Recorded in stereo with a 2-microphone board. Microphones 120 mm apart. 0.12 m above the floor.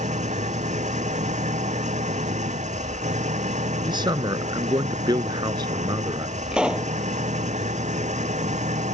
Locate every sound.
0.0 s an engine running: 80° right
3.9 s a man speaking: 40° right (ahead or behind)
6.5 s a pop: 5° right (ahead or behind)